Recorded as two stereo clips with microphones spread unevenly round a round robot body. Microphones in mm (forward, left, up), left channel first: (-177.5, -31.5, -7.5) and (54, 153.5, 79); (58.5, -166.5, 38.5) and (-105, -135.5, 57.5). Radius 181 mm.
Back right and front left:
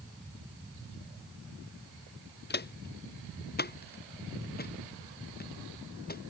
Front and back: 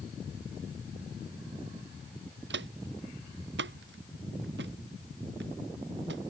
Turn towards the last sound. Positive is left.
turn(degrees=160)